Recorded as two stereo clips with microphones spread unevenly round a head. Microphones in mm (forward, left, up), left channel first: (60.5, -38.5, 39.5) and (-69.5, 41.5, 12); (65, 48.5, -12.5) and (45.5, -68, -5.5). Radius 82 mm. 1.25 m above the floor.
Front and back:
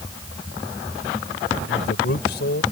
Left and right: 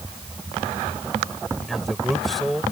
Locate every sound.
1.7 s a man speaking: 10° right